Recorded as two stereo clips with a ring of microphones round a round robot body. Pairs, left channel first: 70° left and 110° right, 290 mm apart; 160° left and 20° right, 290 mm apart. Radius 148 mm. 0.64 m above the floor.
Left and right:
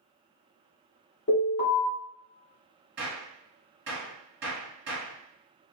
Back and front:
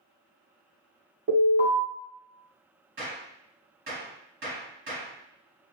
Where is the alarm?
25° left, 1.6 m.